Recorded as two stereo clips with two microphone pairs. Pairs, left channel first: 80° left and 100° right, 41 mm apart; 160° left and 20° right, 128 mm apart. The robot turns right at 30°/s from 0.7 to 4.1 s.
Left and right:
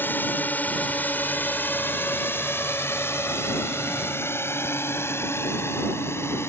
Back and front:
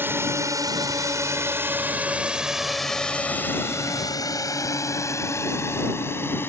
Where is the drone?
50° left; by 6.5 s 85° left.